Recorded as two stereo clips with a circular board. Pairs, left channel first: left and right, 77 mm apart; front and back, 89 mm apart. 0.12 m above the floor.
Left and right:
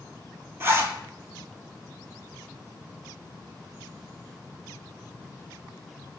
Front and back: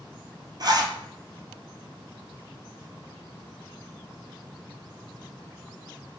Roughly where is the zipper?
Behind right.